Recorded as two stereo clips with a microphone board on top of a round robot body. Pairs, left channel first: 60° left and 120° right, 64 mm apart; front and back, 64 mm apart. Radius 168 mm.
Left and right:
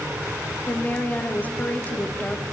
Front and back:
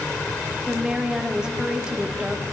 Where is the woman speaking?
110° left, 1.1 m.